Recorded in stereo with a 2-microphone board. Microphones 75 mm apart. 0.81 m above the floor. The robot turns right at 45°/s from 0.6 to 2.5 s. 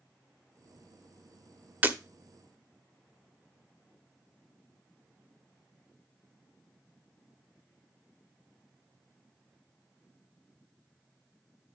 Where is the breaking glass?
20° right (ahead or behind), 1.0 m; by 2.0 s 30° right (ahead or behind), 1.0 m.